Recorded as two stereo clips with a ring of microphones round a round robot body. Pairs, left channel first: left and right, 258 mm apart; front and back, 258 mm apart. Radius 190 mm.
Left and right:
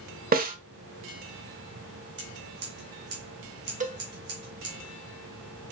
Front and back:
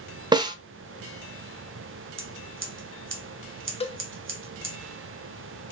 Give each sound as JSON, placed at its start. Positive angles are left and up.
{"t": 0.3, "sound": "a snare drum", "azimuth_deg": -115, "distance_m": 0.8}
{"t": 2.2, "sound": "scissors", "azimuth_deg": -140, "distance_m": 1.3}
{"t": 3.8, "sound": "a cowbell", "azimuth_deg": -55, "distance_m": 0.9}